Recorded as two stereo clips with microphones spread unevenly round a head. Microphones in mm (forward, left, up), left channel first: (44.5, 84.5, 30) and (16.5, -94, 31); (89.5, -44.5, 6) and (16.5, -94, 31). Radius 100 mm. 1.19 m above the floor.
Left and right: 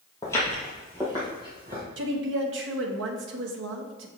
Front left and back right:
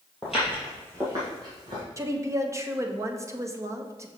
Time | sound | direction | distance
0.2 | footsteps | 140° left | 1.4 m
2.0 | a woman speaking | 85° right | 1.0 m